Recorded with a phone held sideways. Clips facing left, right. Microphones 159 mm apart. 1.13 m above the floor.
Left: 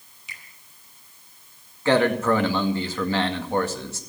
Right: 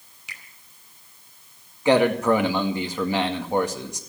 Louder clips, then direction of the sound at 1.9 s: Right 1 dB; 15° right (ahead or behind).